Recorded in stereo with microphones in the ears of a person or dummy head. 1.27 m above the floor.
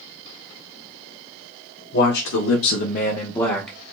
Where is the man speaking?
55° left (ahead or behind), 1.0 m; by 3.8 s 5° left (ahead or behind), 0.9 m.